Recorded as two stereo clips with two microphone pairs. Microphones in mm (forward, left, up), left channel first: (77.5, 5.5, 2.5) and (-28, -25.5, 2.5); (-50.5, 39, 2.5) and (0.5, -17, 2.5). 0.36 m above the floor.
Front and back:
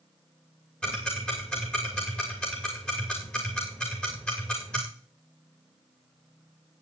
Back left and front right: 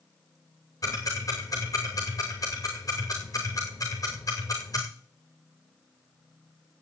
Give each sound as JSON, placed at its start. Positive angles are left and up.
{"t": 0.8, "sound": "ticking", "azimuth_deg": 95, "distance_m": 5.5}